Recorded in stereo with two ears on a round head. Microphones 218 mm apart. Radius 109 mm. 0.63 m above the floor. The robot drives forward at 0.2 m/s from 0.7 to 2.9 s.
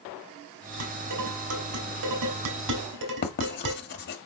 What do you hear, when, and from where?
0.8 s dishes clattering: 80° right, 3 m; by 3.8 s 85° right, 3 m
3.2 s writing: 45° left (ahead or behind), 1.4 m